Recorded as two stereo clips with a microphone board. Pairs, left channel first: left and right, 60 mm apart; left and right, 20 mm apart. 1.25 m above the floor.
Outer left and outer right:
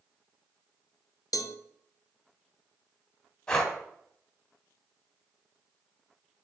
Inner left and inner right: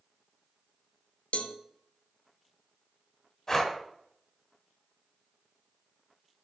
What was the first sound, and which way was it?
A cowbell, 80° left.